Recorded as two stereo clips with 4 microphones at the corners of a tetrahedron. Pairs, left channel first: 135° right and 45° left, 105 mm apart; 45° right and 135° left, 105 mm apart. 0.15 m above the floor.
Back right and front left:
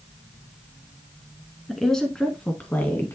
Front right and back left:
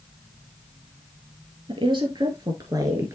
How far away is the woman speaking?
About 2 m.